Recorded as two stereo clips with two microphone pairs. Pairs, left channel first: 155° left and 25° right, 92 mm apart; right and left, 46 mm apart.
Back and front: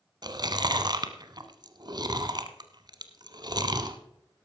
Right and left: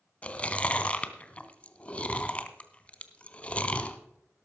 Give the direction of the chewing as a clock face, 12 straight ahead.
1 o'clock.